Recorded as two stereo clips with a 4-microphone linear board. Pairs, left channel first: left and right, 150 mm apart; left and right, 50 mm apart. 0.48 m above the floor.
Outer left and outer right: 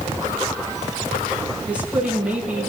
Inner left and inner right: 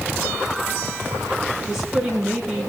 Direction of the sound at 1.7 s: 10° right (ahead or behind).